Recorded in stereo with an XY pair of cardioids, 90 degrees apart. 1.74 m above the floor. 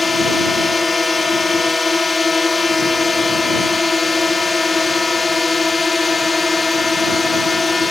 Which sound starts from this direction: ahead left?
A drone, at 0.0 s.